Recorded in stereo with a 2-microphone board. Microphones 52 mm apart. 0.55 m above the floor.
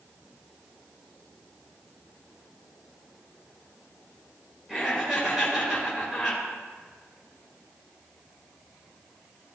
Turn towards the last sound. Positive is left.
turn(degrees=-10)  # may be behind; listen again after turning